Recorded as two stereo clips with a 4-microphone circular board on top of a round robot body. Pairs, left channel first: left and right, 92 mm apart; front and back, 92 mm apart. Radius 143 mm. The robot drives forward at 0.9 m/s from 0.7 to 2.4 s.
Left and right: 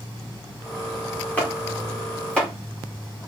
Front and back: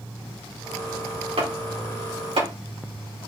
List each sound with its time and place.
1.4 s chopping: 165° left, 4 m; by 2.5 s 170° left, 5 m